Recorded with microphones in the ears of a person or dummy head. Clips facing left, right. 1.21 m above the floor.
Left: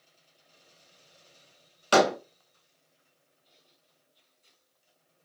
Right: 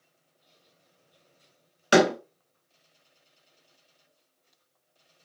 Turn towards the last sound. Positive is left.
turn(degrees=-15)  # may be behind; listen again after turning